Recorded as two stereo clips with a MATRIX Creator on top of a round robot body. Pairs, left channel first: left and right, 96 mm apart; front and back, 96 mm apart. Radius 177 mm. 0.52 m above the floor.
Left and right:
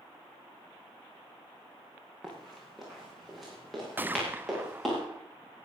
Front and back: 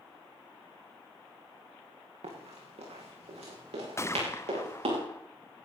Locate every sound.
2.2 s running footsteps: straight behind, 6 m
4.0 s a gunshot: 35° right, 1.1 m